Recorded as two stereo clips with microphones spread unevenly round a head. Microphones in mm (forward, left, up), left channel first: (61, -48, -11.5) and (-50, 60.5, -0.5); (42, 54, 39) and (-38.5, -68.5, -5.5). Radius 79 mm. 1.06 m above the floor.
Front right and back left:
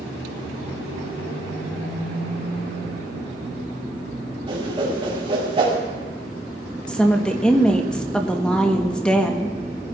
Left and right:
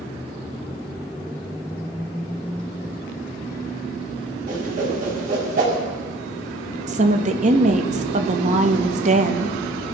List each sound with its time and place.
4.5 s a whoosh: 165° right, 4.5 m
6.9 s a woman speaking: 125° right, 1.2 m